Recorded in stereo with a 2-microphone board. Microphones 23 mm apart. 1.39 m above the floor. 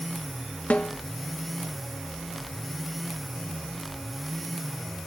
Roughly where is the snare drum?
Left.